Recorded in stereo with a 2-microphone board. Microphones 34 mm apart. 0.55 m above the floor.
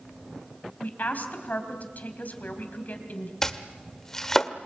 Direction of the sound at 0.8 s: 55° left (ahead or behind).